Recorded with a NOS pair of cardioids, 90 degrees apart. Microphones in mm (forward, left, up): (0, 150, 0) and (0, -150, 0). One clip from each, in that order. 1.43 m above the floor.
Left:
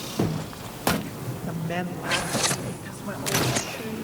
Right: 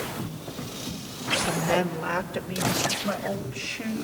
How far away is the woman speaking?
About 2 m.